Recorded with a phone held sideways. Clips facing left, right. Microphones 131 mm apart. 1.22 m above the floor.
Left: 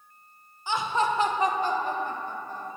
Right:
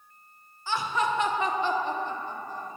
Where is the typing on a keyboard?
No typing on a keyboard in this recording.